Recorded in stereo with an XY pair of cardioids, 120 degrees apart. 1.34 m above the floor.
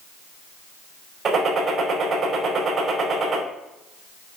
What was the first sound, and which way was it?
A gunshot, 40° right.